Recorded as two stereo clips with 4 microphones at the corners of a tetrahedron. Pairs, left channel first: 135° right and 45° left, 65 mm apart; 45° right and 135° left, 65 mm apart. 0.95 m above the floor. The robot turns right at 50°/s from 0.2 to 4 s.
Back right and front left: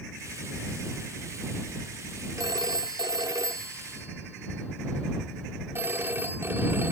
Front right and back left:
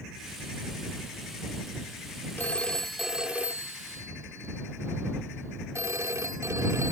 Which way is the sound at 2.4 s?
15° left.